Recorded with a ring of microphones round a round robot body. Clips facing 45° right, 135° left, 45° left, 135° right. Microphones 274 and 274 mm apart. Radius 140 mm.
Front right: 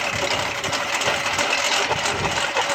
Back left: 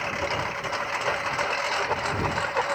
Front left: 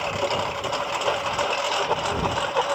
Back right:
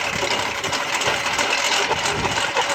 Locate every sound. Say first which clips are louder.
0.0 s a lawn mower: front right 4 dB, even; 80° right; by 2.7 s 85° right